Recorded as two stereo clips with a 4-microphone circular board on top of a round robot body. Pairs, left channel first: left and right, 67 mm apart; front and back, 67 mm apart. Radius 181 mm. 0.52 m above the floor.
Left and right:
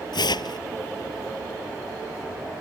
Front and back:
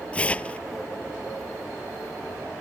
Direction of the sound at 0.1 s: 75° left.